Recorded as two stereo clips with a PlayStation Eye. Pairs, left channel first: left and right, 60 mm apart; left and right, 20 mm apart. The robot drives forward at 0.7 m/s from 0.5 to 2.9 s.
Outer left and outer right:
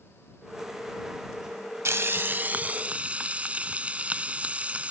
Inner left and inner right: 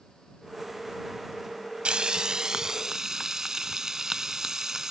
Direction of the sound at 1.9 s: 50° right (ahead or behind).